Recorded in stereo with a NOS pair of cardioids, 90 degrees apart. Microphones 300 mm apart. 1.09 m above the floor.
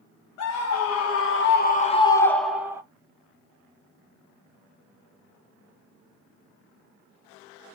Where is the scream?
70° left, 1.1 m; by 2.8 s 10° right, 1.0 m.